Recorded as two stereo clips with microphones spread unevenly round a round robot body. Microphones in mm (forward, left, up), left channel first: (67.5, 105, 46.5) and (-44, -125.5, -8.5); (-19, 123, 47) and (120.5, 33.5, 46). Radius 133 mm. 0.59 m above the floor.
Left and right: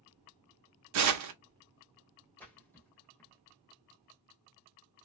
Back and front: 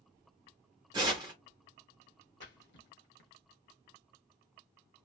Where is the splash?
145° left, 0.9 m.